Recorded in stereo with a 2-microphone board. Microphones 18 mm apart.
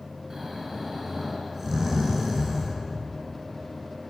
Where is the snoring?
10° right (ahead or behind), 3.5 m.